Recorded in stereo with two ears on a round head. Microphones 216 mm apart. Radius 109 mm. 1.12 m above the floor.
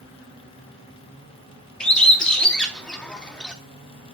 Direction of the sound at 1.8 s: 5° left (ahead or behind).